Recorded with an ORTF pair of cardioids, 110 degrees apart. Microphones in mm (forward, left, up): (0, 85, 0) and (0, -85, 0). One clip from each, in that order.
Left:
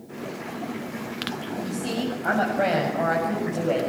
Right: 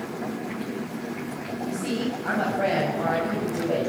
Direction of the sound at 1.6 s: 30° left.